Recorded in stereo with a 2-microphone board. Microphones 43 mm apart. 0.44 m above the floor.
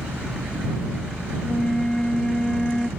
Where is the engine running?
75° right (ahead or behind).